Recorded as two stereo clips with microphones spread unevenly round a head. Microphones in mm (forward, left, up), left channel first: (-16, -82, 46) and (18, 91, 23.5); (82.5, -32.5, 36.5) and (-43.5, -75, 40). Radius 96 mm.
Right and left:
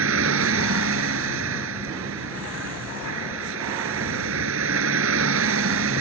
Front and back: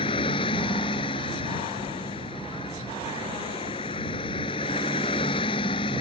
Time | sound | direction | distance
0.0 | a vehicle | 85° left | ?